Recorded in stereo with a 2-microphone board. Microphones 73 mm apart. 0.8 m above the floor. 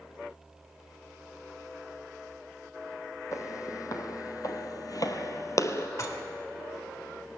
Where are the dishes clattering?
50° left (ahead or behind), 1.6 m.